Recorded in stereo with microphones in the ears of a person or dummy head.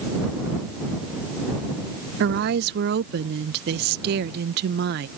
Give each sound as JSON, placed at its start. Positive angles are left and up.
{"t": 2.2, "sound": "a woman speaking", "side_deg": -55}